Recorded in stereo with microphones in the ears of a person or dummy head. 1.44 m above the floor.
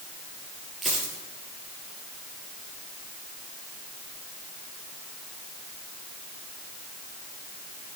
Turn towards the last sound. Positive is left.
turn(degrees=0)  # may be behind; listen again after turning